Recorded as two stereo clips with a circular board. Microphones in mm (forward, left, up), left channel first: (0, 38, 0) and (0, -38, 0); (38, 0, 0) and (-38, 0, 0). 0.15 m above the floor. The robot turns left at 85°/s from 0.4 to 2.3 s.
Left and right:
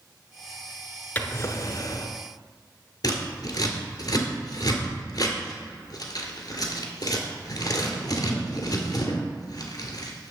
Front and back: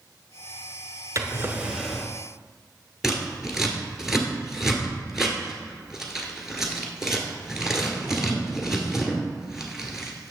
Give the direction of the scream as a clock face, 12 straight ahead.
I don't hear a scream.